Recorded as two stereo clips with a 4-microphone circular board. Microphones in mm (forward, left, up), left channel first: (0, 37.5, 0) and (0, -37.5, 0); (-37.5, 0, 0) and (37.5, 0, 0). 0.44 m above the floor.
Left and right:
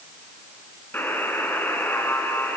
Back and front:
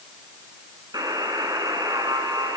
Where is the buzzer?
25° left, 4 m.